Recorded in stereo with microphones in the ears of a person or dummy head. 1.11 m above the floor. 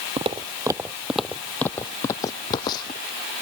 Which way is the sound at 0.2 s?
30° right (ahead or behind).